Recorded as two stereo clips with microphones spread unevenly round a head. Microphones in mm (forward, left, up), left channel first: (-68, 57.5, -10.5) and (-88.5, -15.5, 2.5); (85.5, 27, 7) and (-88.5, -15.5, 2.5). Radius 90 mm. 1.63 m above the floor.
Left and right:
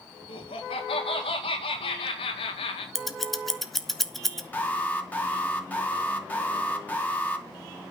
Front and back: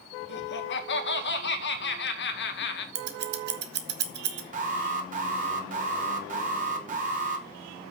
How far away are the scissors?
About 1.6 m.